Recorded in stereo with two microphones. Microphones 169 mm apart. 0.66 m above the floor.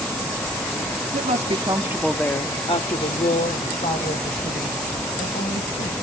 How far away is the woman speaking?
About 1.6 m.